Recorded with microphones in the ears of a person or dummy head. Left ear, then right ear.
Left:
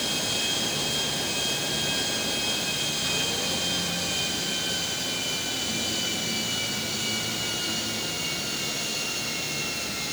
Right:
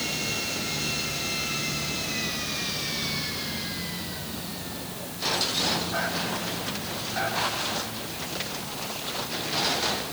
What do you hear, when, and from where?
Only background noise.